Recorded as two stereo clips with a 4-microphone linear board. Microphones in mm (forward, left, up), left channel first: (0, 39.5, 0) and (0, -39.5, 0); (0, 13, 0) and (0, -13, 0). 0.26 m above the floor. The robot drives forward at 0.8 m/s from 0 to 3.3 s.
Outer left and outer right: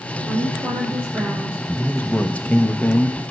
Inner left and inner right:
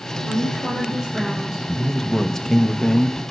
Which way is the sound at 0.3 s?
25° right (ahead or behind).